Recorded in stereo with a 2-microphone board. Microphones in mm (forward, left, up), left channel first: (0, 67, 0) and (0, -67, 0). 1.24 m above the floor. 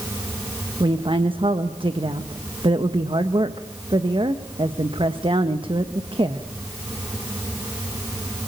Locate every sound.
0.8 s a woman speaking: 40° right (ahead or behind), 1.2 m